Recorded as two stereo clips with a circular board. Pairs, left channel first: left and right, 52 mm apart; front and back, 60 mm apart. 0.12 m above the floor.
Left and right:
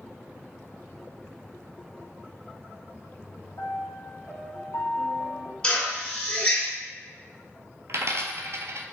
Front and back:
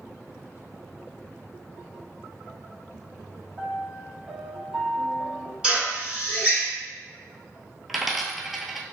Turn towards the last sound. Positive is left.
turn(degrees=-90)